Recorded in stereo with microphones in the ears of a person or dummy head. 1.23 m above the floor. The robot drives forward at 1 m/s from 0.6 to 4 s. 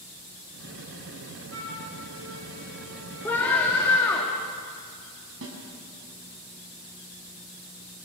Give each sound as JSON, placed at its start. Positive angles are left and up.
{"t": 1.5, "sound": "a flute", "side_deg": -80, "distance_m": 8.0}
{"t": 3.2, "sound": "a scream", "side_deg": 10, "distance_m": 3.5}
{"t": 5.4, "sound": "a snare drum", "side_deg": -70, "distance_m": 5.5}